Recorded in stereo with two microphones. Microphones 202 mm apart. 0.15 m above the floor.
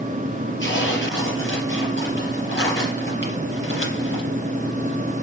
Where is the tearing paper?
60° left (ahead or behind), 4 m.